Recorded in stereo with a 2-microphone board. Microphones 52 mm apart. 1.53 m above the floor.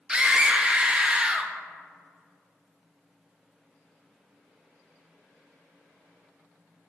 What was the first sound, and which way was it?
A scream, 15° right (ahead or behind).